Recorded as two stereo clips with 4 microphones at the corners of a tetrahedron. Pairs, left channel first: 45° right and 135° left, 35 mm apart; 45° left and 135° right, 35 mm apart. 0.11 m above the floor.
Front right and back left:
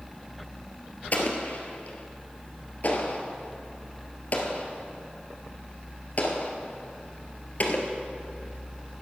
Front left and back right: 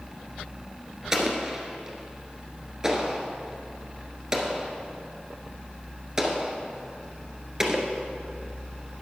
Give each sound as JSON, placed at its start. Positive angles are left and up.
{"t": 1.1, "sound": "an explosion", "azimuth_deg": -70, "distance_m": 1.5}